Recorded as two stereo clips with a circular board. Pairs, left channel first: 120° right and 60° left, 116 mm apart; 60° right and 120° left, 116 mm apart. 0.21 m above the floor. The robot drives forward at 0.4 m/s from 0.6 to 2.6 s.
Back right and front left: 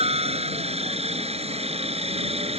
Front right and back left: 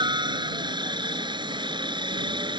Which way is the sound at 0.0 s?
75° left.